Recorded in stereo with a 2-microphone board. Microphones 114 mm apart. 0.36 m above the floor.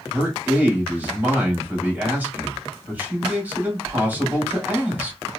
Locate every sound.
0.1 s a man speaking: 15° right (ahead or behind), 2 m